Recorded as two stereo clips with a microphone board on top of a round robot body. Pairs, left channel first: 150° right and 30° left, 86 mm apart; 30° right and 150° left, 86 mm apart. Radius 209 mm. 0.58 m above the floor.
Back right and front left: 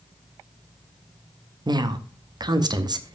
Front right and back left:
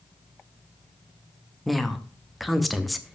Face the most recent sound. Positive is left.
turn(degrees=60)